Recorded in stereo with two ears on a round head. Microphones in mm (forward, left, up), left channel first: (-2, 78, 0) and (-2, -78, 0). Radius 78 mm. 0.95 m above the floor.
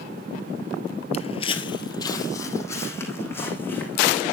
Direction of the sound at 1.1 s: 35° left (ahead or behind).